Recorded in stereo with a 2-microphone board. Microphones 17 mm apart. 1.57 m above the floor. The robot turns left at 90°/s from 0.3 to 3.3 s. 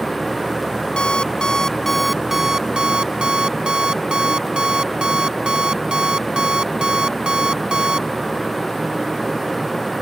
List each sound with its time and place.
1.0 s an alarm clock: 105° left; by 8.1 s 105° right